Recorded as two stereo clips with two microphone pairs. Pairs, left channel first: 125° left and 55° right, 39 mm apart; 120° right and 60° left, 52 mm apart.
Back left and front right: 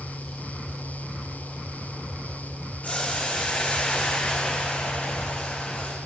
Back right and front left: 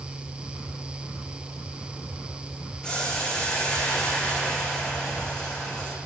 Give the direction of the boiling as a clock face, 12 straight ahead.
6 o'clock.